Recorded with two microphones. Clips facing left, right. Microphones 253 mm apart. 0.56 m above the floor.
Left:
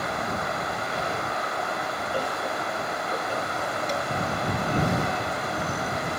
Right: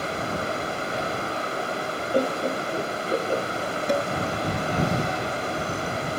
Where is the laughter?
50° right (ahead or behind).